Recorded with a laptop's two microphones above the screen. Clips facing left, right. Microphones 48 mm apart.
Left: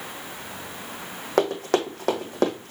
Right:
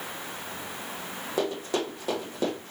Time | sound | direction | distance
1.4 | running footsteps | 60° left (ahead or behind) | 2.5 m